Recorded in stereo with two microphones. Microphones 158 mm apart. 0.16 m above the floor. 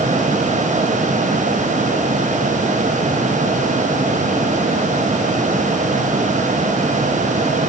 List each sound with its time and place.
Only background noise.